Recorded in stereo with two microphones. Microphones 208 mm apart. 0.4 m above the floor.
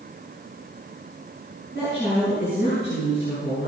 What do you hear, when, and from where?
1.8 s a woman speaking: 65° left (ahead or behind), 5.5 m